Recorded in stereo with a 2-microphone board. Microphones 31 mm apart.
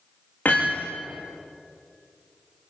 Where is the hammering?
65° left (ahead or behind), 9 m.